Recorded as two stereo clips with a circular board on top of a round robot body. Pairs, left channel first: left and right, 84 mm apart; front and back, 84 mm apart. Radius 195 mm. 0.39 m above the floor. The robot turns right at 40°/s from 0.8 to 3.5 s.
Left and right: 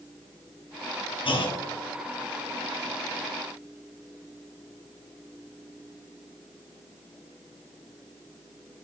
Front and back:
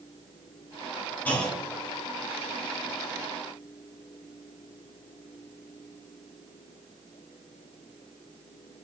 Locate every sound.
1.2 s a clunk: 70° left, 0.8 m; by 1.6 s 85° left, 0.8 m